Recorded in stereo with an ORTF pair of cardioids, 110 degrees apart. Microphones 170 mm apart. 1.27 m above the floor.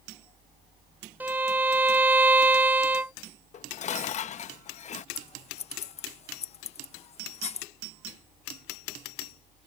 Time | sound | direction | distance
1.2 | a violin | 10° right | ?
3.5 | dishes clattering | 45° left | ?
5.2 | scissors | 40° left | ?